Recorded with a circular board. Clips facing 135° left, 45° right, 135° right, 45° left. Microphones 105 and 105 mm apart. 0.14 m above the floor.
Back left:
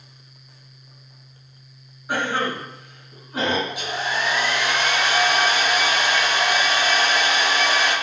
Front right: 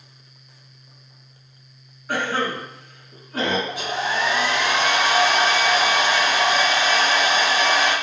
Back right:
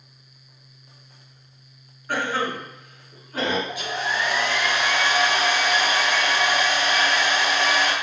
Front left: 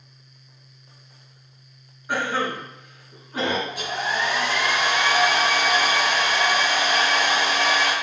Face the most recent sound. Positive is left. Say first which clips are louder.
# front right 2 dB, even
turn(degrees=10)